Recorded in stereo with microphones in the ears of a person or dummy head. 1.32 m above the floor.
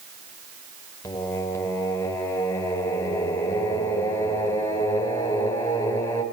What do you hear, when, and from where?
1.0 s singing: 15° left (ahead or behind), 4 m